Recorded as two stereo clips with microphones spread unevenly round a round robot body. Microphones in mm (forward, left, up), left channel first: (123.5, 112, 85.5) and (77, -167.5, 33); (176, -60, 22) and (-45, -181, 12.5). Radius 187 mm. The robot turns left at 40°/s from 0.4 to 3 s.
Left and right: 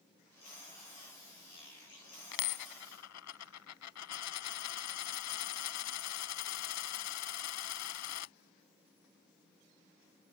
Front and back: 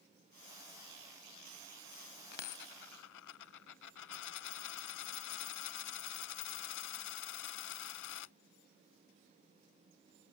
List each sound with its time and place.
2.3 s a dropped coin: 75° left; by 8.3 s 45° left